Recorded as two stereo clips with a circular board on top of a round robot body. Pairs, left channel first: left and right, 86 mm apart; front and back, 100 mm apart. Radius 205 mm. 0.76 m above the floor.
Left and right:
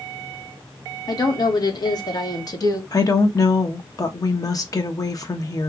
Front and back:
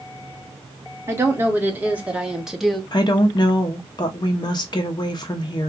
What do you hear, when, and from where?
1.1 s a woman speaking: 115° left, 1.8 m; by 2.8 s 85° left, 1.2 m
2.9 s a woman speaking: 40° left, 0.8 m